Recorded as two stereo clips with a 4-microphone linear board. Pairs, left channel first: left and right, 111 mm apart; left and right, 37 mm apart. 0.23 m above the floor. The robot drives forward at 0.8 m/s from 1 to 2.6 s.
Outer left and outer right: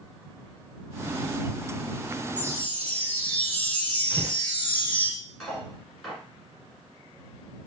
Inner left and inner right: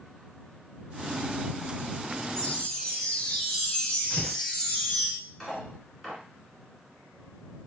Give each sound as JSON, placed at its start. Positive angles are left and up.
{"t": 2.4, "sound": "a chime", "side_deg": 15, "distance_m": 1.1}
{"t": 4.1, "sound": "tearing paper", "side_deg": -10, "distance_m": 2.5}
{"t": 5.4, "sound": "cutlery clinking", "side_deg": 0, "distance_m": 1.9}